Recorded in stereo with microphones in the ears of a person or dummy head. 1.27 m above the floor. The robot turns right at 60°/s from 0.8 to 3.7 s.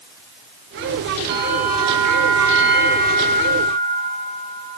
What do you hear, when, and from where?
1.3 s a bell: 60° right, 4.5 m; by 4.6 s 85° left, 4.5 m